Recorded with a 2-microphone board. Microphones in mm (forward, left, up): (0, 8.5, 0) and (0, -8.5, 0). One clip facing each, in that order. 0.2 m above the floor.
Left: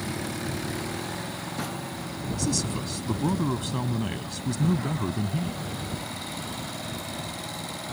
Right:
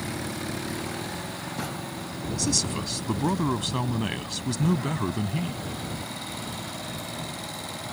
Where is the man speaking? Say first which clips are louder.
Right 2 dB; 25° right (ahead or behind).